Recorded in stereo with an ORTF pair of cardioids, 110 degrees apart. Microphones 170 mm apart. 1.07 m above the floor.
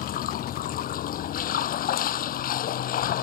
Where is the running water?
60° left.